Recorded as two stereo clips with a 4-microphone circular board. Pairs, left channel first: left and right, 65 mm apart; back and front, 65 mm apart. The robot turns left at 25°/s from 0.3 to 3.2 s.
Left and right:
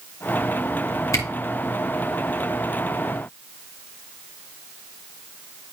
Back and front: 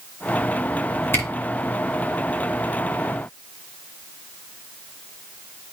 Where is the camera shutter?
130° left, 2.5 m; by 1.2 s 125° left, 2.5 m.